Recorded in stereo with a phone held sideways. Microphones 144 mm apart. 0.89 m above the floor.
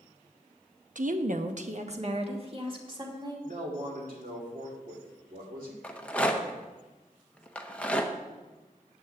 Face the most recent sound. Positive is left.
turn(degrees=10)  # may be behind; listen again after turning